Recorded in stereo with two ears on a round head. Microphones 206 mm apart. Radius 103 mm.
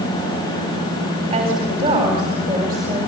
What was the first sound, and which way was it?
A woman speaking, 25° right (ahead or behind).